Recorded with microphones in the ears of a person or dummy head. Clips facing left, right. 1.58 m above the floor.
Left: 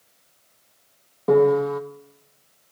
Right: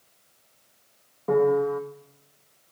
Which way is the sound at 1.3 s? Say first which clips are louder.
Left 4 dB; 50° left (ahead or behind).